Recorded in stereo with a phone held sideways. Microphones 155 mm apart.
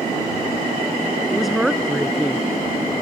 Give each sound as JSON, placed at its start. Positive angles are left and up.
{"t": 1.3, "sound": "a woman speaking", "side_deg": 0}